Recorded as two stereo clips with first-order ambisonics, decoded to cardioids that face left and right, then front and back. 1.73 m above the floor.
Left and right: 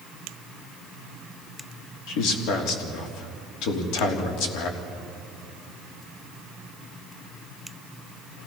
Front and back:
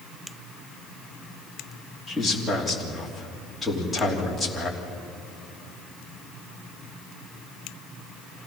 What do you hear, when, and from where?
2.1 s a man speaking: 85° left, 3.5 m